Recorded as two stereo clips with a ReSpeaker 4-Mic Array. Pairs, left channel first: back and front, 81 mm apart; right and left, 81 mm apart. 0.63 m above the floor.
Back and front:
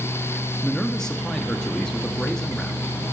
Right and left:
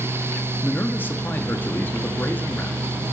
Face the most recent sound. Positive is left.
turn(degrees=-110)